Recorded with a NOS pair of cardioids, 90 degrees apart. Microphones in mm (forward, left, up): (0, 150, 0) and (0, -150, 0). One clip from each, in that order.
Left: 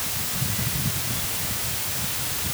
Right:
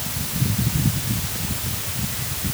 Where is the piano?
No piano in this recording.